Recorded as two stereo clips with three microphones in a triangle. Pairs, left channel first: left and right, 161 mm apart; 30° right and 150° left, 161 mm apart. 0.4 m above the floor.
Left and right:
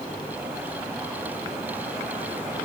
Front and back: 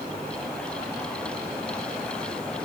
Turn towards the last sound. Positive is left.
No sound to turn to.